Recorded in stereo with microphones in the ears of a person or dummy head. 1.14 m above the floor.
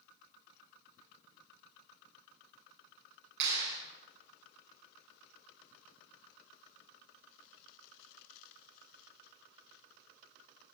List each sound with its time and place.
3.4 s a clap: 60° right (ahead or behind), 9.5 m